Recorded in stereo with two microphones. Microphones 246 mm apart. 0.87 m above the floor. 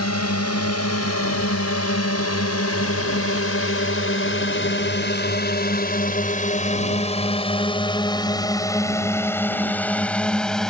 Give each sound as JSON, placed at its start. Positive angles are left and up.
{"t": 0.0, "sound": "a drone", "side_deg": 80}